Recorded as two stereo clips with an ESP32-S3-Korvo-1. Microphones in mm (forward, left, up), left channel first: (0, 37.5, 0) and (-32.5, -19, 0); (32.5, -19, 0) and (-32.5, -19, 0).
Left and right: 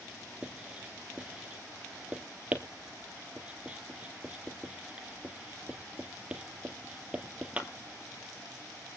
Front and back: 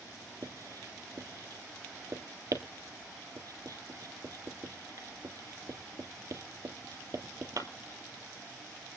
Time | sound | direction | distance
0.4 | writing | 170° left | 2 m